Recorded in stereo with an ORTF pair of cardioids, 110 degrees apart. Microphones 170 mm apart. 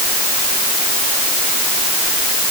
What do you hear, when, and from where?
Only background noise.